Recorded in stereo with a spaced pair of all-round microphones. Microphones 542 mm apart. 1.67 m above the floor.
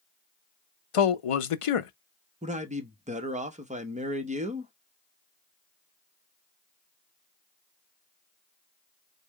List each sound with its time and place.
0.9 s a man speaking: 70° left (ahead or behind), 0.6 m
2.4 s a man speaking: 15° right (ahead or behind), 0.7 m